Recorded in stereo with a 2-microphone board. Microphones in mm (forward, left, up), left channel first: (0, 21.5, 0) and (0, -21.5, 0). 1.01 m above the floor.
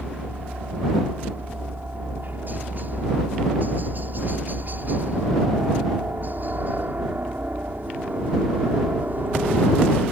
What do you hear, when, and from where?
0.0 s a helicopter: 45° right (ahead or behind)